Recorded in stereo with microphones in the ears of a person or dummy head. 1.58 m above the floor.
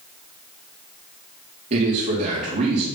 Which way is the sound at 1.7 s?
30° right (ahead or behind).